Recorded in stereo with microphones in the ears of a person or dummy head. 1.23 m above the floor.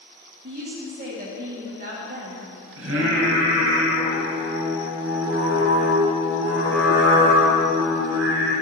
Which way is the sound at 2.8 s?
75° right (ahead or behind).